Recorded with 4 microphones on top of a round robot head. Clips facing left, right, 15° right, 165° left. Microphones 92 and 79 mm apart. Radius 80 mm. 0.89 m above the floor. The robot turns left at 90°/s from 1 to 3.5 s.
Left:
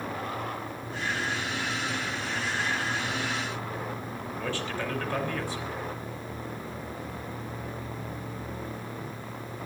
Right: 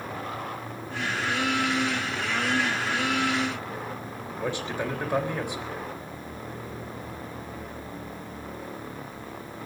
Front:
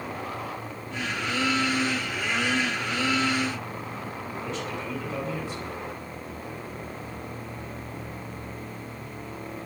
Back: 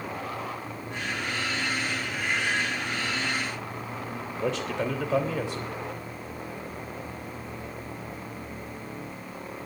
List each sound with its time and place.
4.4 s a man speaking: 160° right, 3.5 m